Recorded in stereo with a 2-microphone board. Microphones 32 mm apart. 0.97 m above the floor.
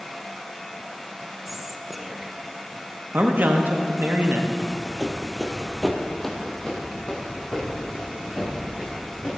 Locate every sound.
1.5 s whispering: 10° right (ahead or behind), 0.7 m
3.1 s a man speaking: 55° right (ahead or behind), 0.9 m
4.6 s running footsteps: 40° right (ahead or behind), 1.3 m; by 9.4 s 40° left (ahead or behind), 4 m